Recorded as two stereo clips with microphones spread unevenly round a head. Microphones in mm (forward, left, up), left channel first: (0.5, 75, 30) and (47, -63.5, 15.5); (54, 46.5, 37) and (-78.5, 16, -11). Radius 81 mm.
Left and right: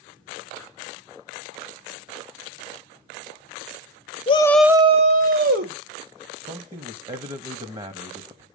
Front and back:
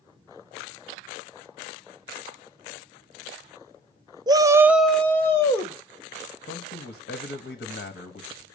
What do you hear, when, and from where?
4.3 s a shout: 120° left, 0.7 m; by 5.8 s 50° right, 1.5 m
6.5 s a man speaking: 15° right, 1.5 m